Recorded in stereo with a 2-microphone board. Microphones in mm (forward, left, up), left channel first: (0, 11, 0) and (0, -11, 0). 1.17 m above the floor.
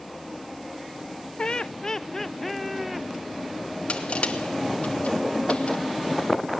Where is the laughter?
40° left (ahead or behind), 0.6 m; by 3.1 s 5° right (ahead or behind), 1.2 m.